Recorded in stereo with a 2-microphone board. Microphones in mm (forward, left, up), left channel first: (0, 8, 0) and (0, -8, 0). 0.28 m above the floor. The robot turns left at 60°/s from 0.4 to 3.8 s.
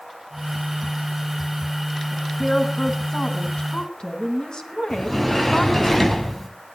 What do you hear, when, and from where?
2.1 s a woman speaking: 170° left, 3 m; by 5.9 s 70° left, 3 m
4.9 s a sliding door: 15° left (ahead or behind), 2 m